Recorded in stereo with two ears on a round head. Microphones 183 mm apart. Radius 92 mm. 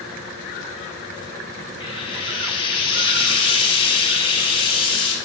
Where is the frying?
25° left (ahead or behind), 1.3 m.